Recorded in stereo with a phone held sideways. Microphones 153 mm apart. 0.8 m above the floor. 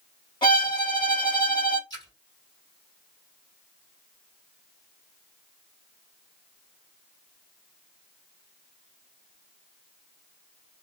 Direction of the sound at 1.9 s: 30° left (ahead or behind).